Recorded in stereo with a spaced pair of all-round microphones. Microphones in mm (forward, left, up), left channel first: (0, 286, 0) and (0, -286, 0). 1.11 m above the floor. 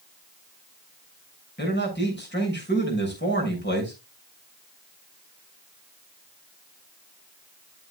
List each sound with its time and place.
1.6 s a man speaking: 20° left (ahead or behind), 6 m